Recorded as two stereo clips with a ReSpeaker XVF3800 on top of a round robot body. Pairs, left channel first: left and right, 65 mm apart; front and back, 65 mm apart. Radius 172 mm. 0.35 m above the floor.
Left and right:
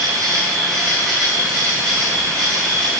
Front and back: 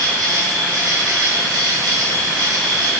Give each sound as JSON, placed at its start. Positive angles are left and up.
{"t": 0.0, "sound": "an insect", "azimuth_deg": 175, "distance_m": 4.0}